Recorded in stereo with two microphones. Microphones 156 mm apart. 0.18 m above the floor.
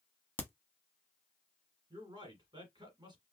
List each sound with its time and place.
0.4 s a crack: 10° left (ahead or behind), 0.8 m
1.9 s a man speaking: 30° right (ahead or behind), 1.7 m